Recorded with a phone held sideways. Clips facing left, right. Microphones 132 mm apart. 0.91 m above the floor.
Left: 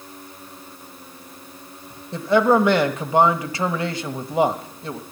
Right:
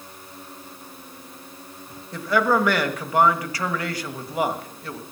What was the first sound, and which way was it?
A man speaking, 25° left (ahead or behind).